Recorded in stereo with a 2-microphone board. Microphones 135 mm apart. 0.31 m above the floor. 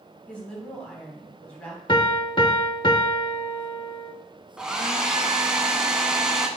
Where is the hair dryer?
5° right (ahead or behind), 0.9 m.